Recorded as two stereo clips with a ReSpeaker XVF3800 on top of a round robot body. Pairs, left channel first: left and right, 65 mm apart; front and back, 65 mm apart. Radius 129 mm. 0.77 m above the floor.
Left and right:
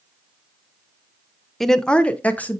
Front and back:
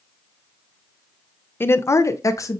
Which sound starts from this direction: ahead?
A woman speaking, at 1.6 s.